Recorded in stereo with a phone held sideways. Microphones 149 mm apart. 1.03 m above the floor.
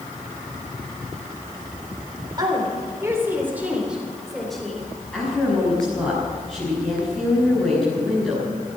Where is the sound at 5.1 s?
5° left (ahead or behind), 6.5 m.